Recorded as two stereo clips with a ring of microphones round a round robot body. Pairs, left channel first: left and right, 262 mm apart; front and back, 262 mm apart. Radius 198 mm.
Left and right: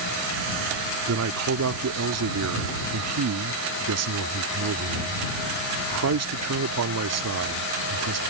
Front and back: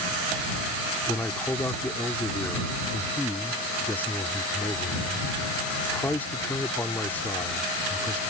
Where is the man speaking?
85° right.